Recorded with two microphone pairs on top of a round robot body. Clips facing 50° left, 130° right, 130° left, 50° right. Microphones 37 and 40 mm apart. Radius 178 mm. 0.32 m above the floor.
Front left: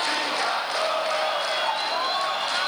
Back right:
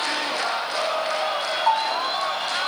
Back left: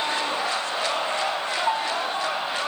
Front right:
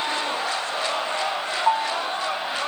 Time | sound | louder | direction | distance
1.7 | a bell | back right 5 dB, front right 5 dB | 50° right | 3 m